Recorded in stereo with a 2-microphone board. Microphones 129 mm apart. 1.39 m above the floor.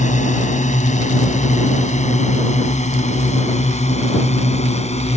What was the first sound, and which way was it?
A drone, 70° left (ahead or behind).